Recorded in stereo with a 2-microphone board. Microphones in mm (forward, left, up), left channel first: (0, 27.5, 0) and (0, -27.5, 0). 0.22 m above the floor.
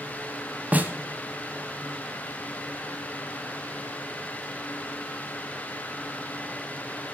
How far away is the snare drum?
About 0.7 m.